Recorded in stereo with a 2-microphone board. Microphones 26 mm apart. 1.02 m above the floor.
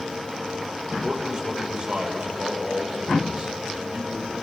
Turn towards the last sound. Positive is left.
turn(degrees=-35)  # may be behind; listen again after turning